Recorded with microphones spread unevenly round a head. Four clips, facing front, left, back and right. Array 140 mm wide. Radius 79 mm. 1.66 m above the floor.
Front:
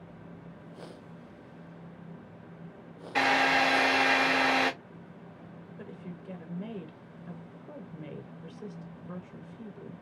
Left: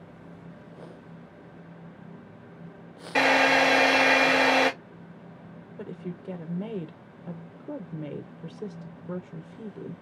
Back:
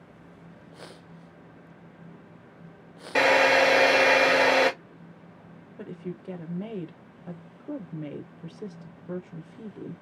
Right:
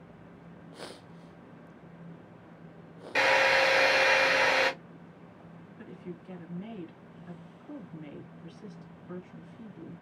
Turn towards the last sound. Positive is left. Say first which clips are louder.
# left 6 dB, back 8 dB
turn(degrees=120)